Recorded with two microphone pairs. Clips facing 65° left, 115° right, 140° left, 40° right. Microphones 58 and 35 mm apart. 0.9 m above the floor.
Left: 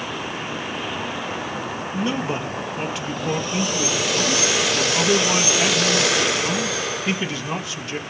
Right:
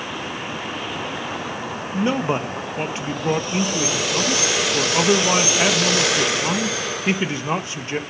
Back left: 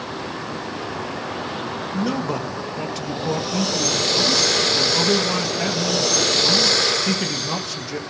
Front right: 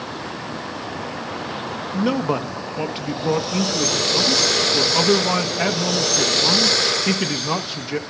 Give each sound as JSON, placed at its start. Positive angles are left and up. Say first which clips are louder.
{"t": 1.9, "sound": "a man speaking", "louder": "right 4 dB, front right 4 dB", "azimuth_deg": -85, "distance_m": 1.0}